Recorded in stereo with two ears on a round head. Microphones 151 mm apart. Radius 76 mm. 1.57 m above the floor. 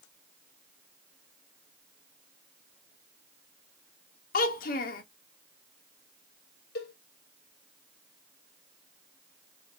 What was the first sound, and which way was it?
A child speaking, 55° left (ahead or behind).